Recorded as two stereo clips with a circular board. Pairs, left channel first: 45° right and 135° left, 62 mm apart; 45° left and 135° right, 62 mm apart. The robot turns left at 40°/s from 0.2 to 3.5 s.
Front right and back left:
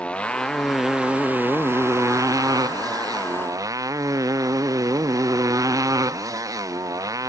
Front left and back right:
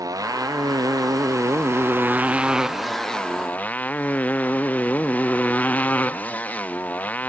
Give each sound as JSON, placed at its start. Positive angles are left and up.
{"t": 0.0, "sound": "a motorcycle", "azimuth_deg": -115}